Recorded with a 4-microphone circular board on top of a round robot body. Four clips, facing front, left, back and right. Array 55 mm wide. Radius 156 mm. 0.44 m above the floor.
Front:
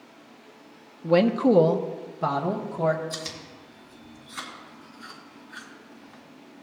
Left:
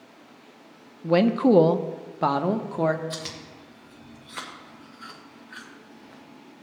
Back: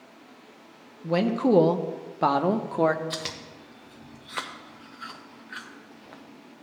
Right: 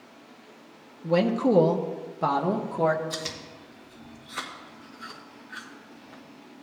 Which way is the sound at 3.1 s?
175° left.